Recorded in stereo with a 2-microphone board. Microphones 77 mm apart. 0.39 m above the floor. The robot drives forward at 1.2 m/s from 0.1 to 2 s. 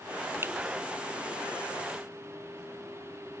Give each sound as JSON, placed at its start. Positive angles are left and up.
{"t": 0.4, "sound": "a finger snap", "side_deg": -30}